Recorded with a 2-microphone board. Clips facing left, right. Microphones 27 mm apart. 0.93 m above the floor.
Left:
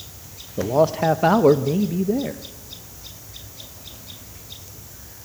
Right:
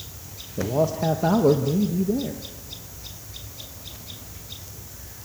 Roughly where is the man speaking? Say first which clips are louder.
Left 5 dB; left.